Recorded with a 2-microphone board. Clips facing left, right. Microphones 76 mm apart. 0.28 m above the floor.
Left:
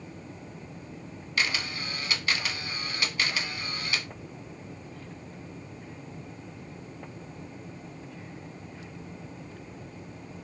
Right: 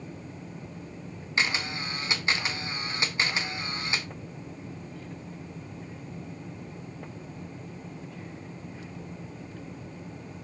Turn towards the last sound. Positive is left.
turn(degrees=-25)  # may be behind; listen again after turning